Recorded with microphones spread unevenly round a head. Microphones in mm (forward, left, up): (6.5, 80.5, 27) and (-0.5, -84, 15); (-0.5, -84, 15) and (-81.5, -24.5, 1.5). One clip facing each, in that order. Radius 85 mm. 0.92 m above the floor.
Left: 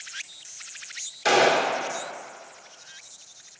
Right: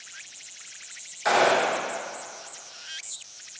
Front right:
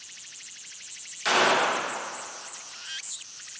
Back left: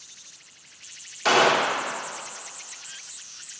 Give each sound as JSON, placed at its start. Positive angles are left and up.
{"t": 1.2, "sound": "a gunshot", "azimuth_deg": 140, "distance_m": 0.9}